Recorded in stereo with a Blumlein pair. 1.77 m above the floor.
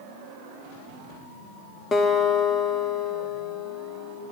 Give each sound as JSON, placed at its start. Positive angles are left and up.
{"t": 1.9, "sound": "a guitar", "azimuth_deg": 20, "distance_m": 1.2}